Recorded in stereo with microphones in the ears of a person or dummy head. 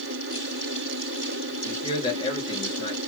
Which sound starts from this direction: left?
A man speaking, at 1.6 s.